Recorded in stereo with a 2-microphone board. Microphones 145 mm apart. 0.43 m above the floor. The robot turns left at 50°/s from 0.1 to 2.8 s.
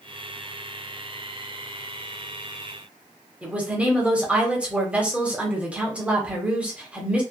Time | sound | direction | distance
3.4 | a woman speaking | 10° right (ahead or behind) | 0.9 m